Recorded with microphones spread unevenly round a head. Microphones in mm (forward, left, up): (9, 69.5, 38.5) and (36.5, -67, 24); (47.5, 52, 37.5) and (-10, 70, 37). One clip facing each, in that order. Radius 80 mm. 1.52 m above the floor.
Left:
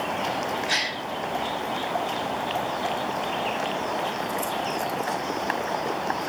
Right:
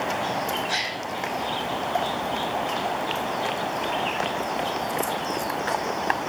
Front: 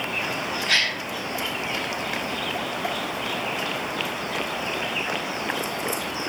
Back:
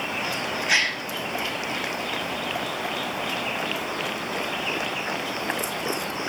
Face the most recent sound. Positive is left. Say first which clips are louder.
# even, back 1 dB
turn(degrees=90)